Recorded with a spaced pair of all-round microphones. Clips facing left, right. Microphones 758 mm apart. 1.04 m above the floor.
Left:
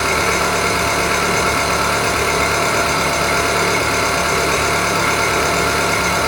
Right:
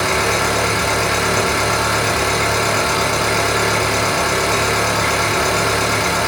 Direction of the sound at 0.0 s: 10° left (ahead or behind).